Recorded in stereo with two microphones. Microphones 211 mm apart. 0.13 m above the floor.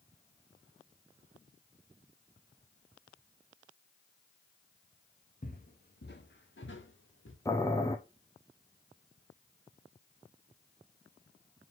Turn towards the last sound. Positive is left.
turn(degrees=15)  # may be behind; listen again after turning